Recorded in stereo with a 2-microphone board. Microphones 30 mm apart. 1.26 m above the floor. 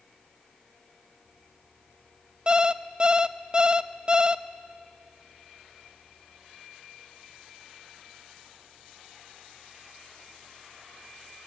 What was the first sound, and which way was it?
An alarm clock, 25° right (ahead or behind).